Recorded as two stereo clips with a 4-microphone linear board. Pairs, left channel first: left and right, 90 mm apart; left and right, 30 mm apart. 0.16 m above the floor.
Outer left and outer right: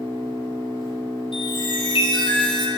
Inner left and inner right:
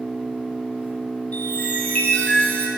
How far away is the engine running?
About 1.4 m.